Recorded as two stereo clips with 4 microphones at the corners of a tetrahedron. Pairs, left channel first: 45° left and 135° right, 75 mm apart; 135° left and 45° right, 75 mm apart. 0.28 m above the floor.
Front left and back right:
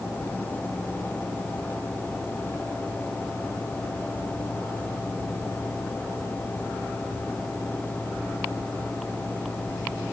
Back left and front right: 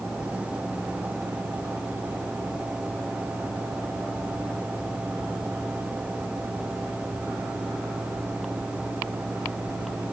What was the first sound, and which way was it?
Only background noise.